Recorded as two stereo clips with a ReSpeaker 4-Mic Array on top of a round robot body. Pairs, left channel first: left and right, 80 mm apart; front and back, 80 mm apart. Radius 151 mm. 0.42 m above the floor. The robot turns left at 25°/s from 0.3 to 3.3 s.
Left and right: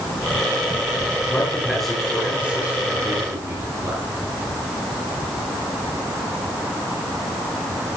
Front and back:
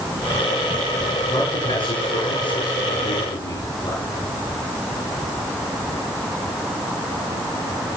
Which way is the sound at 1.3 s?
15° left.